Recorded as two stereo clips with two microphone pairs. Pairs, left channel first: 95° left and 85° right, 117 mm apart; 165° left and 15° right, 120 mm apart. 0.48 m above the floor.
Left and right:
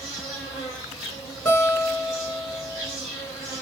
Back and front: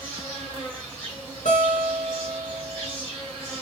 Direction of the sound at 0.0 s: 110° left.